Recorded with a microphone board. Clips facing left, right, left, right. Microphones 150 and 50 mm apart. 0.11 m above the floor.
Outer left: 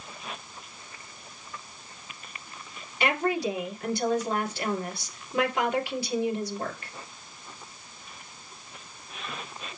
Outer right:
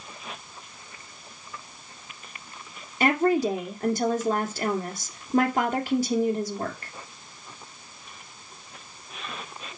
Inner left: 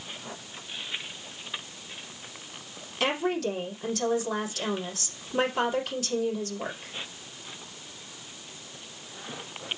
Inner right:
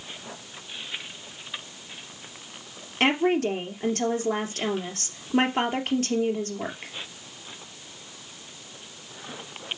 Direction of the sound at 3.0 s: 40° right (ahead or behind).